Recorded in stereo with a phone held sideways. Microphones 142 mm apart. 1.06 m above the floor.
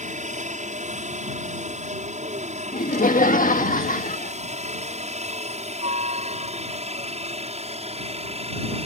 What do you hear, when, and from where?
0.0 s a helicopter: 60° right (ahead or behind); by 8.9 s 50° right (ahead or behind)
2.7 s laughter: 75° left (ahead or behind)